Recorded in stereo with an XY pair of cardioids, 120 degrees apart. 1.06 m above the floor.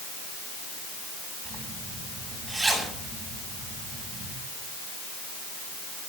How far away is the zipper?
About 7.5 m.